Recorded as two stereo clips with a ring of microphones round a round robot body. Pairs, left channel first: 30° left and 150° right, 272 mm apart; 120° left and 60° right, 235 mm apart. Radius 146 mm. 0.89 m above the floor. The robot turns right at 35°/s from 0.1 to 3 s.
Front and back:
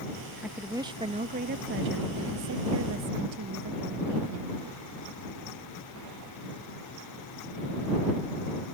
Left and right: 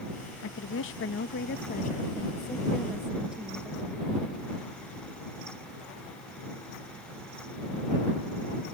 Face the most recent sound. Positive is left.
turn(degrees=-145)